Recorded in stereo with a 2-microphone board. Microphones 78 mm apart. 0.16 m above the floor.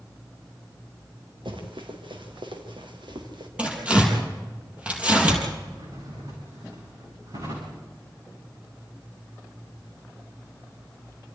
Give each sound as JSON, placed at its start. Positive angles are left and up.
{"t": 1.4, "sound": "running footsteps", "side_deg": -85, "distance_m": 4.5}
{"t": 3.6, "sound": "tearing paper", "side_deg": -15, "distance_m": 5.5}
{"t": 5.7, "sound": "a drawer", "side_deg": -55, "distance_m": 8.5}